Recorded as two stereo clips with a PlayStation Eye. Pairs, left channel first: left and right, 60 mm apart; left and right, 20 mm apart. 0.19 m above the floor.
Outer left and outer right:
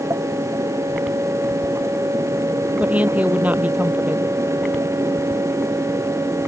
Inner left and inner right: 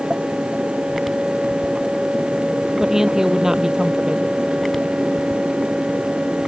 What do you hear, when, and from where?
2.8 s a woman speaking: 25° right (ahead or behind)